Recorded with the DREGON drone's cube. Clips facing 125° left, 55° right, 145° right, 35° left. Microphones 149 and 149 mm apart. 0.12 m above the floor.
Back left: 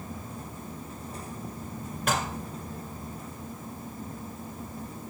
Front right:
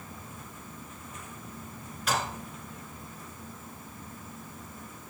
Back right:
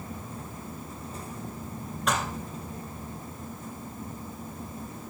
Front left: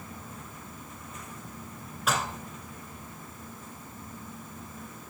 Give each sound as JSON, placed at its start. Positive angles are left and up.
{"t": 2.1, "sound": "dishes clattering", "azimuth_deg": 120, "distance_m": 1.5}